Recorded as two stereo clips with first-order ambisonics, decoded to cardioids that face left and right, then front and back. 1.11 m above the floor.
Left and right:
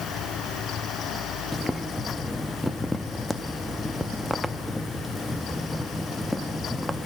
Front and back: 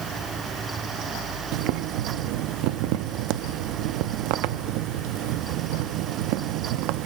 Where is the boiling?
175° left, 0.8 m.